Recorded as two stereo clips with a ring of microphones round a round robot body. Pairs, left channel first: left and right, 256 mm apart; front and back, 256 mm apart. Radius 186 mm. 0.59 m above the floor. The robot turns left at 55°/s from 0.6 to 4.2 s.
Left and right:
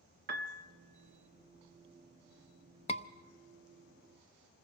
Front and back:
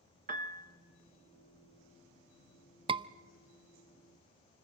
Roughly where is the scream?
Behind left.